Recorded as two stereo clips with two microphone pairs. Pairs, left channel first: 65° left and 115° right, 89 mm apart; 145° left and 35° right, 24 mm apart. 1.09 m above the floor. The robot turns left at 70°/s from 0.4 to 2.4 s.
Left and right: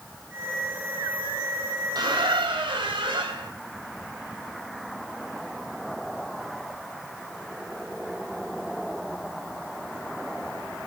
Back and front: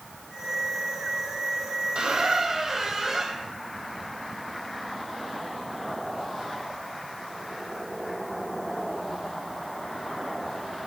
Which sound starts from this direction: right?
A squeak, at 1.9 s.